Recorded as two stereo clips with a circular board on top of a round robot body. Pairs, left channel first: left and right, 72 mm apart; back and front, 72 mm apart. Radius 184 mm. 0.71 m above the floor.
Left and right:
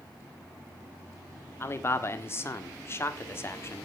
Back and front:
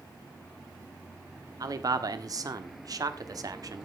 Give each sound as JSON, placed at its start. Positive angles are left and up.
{"t": 1.6, "sound": "a man speaking", "azimuth_deg": 35, "distance_m": 1.8}